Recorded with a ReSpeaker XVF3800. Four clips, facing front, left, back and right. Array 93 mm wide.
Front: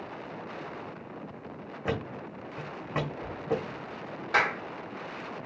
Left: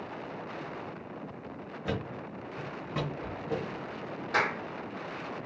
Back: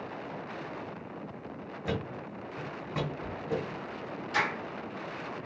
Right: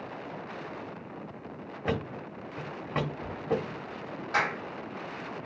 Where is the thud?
50° right, 1.0 m.